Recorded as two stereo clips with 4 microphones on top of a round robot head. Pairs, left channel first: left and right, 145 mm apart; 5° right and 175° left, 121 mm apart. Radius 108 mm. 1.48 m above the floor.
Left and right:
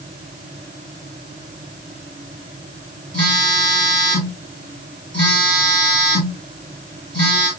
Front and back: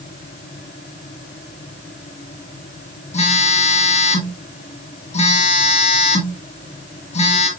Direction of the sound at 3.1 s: 25° left.